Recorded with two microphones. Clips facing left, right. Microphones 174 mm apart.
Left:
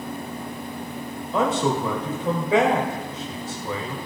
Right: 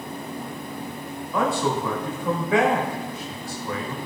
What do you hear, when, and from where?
1.3 s a man speaking: 25° left (ahead or behind), 1.6 m